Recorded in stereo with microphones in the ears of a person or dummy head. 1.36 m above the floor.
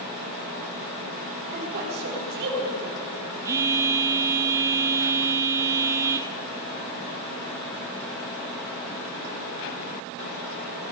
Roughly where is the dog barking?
I don't hear a dog barking.